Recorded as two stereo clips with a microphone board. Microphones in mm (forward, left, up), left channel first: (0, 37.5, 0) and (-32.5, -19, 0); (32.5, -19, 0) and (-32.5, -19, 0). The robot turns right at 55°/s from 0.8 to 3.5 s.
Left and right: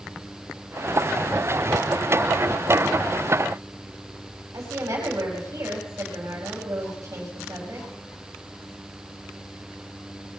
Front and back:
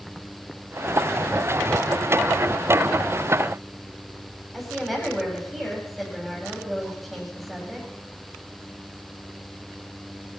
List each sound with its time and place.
4.5 s a woman speaking: 90° right, 6.5 m